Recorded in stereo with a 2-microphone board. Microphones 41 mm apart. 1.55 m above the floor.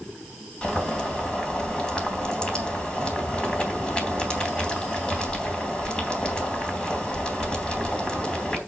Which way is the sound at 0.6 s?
20° left (ahead or behind).